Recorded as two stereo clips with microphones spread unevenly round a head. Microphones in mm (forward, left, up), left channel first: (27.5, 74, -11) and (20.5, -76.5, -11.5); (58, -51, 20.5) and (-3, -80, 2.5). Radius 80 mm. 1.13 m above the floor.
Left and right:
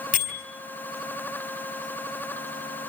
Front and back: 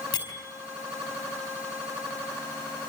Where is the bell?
60° left, 5.5 m.